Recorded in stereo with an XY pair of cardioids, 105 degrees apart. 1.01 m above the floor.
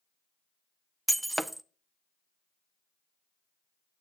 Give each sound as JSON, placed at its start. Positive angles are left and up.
{"t": 1.1, "sound": "breaking glass", "azimuth_deg": -5, "distance_m": 0.6}